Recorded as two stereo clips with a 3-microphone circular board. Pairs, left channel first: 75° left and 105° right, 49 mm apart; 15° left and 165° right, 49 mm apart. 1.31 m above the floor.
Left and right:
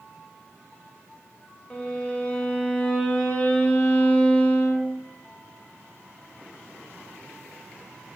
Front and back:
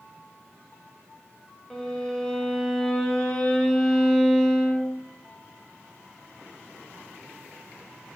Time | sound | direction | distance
1.7 | a violin | 70° left | 0.6 m